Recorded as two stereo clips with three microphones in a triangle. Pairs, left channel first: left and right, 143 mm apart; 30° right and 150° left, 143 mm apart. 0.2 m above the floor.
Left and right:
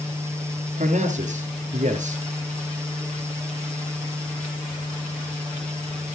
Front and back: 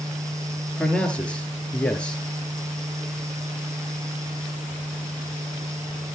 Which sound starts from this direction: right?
A man speaking, at 0.8 s.